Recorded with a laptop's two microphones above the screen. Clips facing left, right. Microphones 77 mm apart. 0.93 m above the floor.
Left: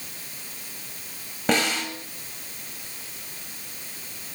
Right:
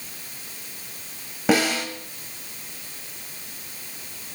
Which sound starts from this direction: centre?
A snare drum, at 1.5 s.